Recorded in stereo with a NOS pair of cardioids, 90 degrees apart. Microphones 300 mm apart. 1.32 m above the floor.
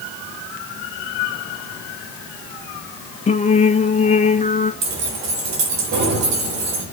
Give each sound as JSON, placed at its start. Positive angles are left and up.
{"t": 3.3, "sound": "singing", "azimuth_deg": 25, "distance_m": 1.5}
{"t": 4.8, "sound": "keys jangling", "azimuth_deg": -65, "distance_m": 4.5}